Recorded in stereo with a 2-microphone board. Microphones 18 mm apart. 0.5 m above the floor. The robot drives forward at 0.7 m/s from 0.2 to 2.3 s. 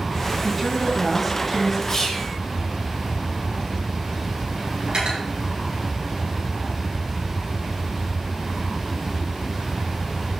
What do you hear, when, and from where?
0.4 s a woman speaking: centre (ahead or behind), 3 m
1.9 s whispering: 30° left (ahead or behind), 2.5 m; by 2.3 s 25° left (ahead or behind), 3 m
4.9 s cutlery clinking: 50° right (ahead or behind), 5 m